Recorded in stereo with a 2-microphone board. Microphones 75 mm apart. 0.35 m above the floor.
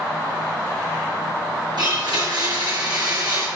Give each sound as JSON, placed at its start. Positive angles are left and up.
{"t": 1.8, "sound": "a blender", "side_deg": -70, "distance_m": 6.0}